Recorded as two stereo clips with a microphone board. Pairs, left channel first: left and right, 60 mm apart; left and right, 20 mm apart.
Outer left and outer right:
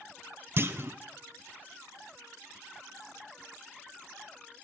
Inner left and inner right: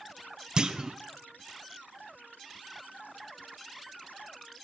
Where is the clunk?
40° right (ahead or behind), 0.5 m.